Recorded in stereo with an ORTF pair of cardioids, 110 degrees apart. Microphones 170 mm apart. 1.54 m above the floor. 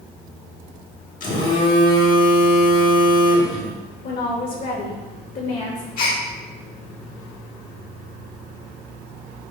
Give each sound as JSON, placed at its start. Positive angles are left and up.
{"t": 1.2, "sound": "a phone buzzing", "azimuth_deg": 55, "distance_m": 2.0}
{"t": 4.0, "sound": "a woman speaking", "azimuth_deg": 60, "distance_m": 2.5}
{"t": 6.0, "sound": "a gasp", "azimuth_deg": 55, "distance_m": 2.0}